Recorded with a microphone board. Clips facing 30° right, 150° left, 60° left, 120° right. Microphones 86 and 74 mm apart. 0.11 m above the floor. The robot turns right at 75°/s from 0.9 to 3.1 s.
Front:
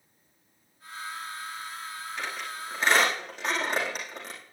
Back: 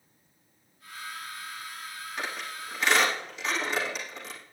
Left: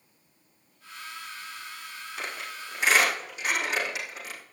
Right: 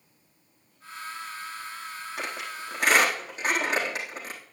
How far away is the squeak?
About 4.5 m.